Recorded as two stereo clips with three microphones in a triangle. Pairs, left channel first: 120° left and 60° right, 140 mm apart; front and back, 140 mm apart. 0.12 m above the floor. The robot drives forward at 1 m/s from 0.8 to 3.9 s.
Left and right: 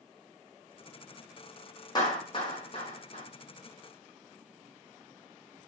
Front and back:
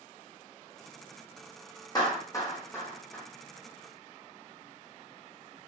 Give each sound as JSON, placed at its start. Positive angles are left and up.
{"t": 1.9, "sound": "a clap", "azimuth_deg": 60, "distance_m": 4.0}